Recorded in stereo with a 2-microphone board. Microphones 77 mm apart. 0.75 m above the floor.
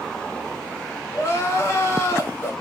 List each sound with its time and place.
1.1 s crying: 35° left (ahead or behind), 1.5 m